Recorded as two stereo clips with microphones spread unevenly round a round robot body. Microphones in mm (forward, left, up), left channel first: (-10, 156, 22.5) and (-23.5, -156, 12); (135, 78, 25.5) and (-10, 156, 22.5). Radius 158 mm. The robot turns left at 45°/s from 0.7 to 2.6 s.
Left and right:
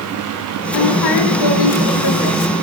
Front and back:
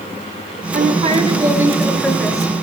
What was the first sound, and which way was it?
A woman speaking, 115° left.